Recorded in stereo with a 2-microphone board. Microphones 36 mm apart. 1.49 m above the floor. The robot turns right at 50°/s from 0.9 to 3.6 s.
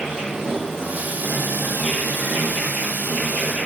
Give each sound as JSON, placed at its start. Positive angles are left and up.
{"t": 0.0, "sound": "an insect", "azimuth_deg": -165, "distance_m": 0.7}